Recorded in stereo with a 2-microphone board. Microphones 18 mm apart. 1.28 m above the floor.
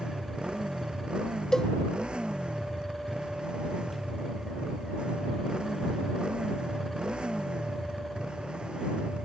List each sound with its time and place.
0.0 s a motorcycle: 60° right (ahead or behind)
1.5 s a cowbell: 35° left (ahead or behind)